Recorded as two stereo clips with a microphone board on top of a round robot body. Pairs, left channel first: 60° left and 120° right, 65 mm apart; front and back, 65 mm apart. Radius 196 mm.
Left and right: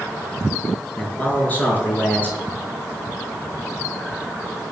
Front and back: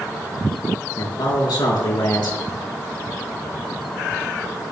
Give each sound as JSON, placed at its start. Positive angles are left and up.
{"t": 1.0, "sound": "a man speaking", "azimuth_deg": -5, "distance_m": 6.5}